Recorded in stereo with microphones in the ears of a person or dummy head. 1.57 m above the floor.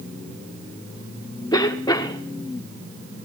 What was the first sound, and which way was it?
A cough, 20° left (ahead or behind).